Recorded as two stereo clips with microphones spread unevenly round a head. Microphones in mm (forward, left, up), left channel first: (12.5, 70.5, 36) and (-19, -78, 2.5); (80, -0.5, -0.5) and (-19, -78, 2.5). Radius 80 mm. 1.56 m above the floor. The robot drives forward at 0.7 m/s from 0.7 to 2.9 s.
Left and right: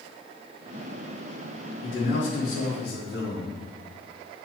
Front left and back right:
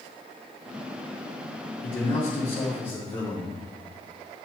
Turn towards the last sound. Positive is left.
turn(degrees=100)